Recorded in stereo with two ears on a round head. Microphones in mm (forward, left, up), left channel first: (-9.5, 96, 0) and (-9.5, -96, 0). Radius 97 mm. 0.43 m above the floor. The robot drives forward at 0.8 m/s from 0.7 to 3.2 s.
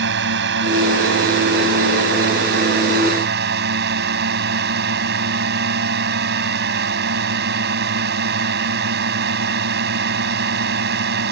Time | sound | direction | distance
0.0 | a drone | 60° right (ahead or behind) | ?